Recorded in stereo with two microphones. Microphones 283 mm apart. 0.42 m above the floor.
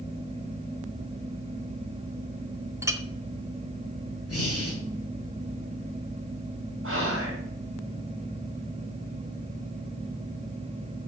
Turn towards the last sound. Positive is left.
turn(degrees=-50)  # may be behind; listen again after turning